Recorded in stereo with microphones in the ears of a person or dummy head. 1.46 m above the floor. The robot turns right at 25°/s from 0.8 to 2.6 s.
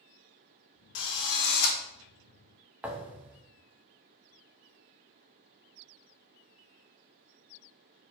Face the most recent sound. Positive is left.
turn(degrees=-5)  # may be behind; listen again after turning